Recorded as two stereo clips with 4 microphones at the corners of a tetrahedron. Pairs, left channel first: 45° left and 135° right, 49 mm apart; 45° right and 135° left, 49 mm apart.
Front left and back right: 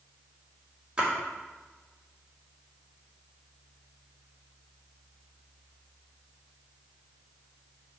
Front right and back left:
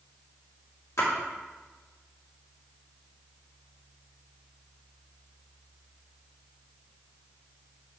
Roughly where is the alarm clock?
I don't hear an alarm clock.